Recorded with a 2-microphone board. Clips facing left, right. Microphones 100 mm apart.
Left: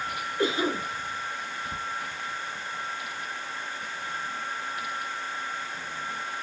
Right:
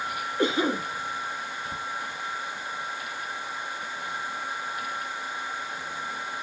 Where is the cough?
25° right (ahead or behind), 2.0 m.